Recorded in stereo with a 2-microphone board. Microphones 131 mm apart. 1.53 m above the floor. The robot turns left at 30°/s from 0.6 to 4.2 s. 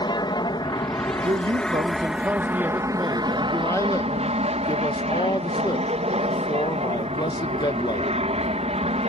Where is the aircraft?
40° left; by 9.1 s 65° right.